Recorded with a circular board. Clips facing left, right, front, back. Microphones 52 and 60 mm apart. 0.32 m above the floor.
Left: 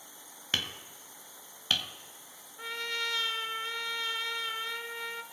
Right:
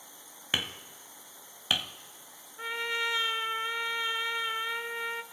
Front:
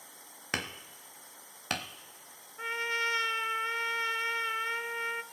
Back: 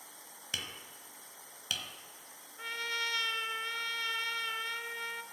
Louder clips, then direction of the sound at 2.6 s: Right 3 dB, front 5 dB; 40° right.